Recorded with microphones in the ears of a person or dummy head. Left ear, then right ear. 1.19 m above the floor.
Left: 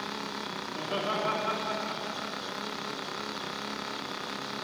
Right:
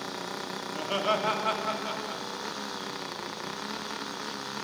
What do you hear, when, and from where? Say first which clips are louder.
0.7 s laughter: right 4 dB; 80° right, 2.5 m